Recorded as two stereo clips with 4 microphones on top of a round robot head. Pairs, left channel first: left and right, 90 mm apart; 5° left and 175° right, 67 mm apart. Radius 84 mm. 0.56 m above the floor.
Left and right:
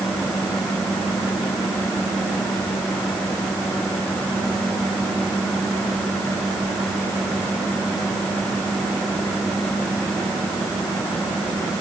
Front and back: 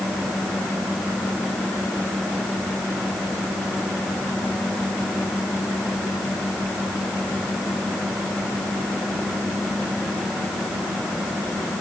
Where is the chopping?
No chopping in this recording.